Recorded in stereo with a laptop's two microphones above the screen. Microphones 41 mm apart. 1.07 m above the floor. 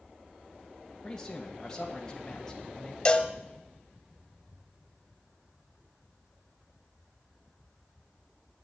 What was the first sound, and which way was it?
A man speaking, 15° left (ahead or behind).